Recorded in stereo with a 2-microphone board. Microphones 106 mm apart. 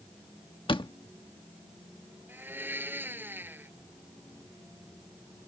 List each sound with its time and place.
0.7 s a door slam: 55° left (ahead or behind)
2.3 s a blender: 20° right (ahead or behind)